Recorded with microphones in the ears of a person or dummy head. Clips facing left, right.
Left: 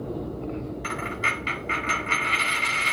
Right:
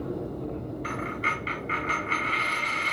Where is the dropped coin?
60° left (ahead or behind), 3 m.